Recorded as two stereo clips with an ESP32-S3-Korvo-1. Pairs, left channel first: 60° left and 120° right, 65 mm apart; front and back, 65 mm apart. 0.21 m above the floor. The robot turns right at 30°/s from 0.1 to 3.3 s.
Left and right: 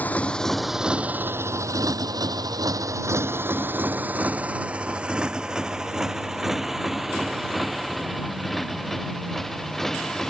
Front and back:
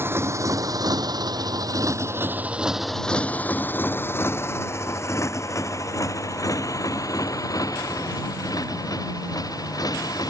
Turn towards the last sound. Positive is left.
turn(degrees=-25)